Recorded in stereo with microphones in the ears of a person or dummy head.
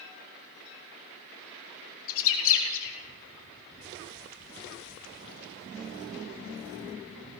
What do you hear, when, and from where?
2.1 s a bird: 75° left (ahead or behind), 3.5 m